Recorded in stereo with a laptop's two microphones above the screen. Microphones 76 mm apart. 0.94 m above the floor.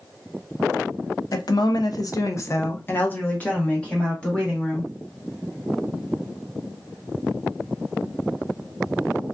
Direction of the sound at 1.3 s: 55° left (ahead or behind).